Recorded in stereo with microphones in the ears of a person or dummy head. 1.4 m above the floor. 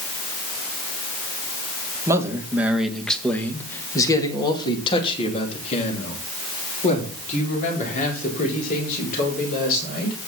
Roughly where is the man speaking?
Centre.